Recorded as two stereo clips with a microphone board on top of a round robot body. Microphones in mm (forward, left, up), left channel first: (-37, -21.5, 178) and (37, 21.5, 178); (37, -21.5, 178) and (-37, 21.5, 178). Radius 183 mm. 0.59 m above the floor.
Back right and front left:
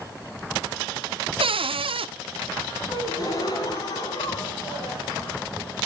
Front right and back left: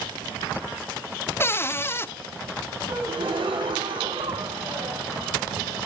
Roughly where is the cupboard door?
Ahead left.